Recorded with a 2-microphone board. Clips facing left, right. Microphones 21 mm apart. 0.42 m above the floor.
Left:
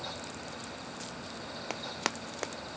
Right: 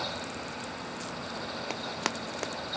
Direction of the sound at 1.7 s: 5° right (ahead or behind).